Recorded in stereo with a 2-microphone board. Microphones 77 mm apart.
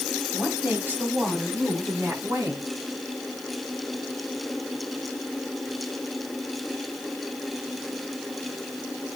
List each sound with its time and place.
0.3 s a woman speaking: 15° right (ahead or behind), 4 m; by 2.6 s 35° right (ahead or behind), 6.5 m